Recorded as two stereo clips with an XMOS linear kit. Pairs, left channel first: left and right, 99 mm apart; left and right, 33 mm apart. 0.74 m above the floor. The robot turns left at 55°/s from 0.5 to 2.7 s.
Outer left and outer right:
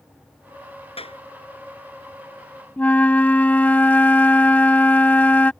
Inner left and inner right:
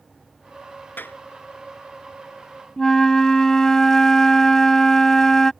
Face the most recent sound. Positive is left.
turn(degrees=15)  # may be behind; listen again after turning